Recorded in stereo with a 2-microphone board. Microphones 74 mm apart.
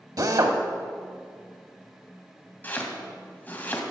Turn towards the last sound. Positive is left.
turn(degrees=25)  # may be behind; listen again after turning